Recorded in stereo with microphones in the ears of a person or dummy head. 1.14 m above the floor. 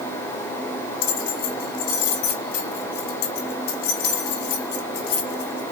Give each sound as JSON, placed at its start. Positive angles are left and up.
{"t": 1.0, "sound": "keys jangling", "side_deg": 55, "distance_m": 1.2}